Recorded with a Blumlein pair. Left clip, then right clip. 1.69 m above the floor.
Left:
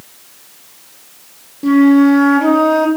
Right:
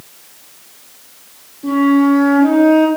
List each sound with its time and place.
1.6 s a flute: 55° left, 1.5 m